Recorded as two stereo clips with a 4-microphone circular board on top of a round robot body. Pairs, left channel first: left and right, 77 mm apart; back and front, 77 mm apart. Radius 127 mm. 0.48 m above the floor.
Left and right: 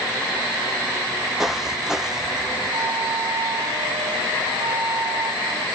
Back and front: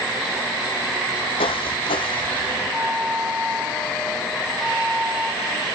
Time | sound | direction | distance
1.4 | footsteps | 175° right | 0.9 m
2.7 | a flute | 100° right | 2.5 m